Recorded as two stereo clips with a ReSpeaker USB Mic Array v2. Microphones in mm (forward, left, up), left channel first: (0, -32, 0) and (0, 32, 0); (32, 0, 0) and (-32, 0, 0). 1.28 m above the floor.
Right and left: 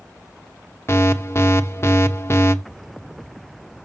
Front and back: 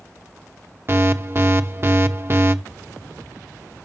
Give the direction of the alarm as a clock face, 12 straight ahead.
4 o'clock.